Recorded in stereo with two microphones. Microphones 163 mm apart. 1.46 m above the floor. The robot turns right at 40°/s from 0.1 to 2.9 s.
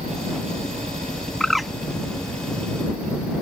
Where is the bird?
5° left (ahead or behind); by 1.7 s 5° right (ahead or behind).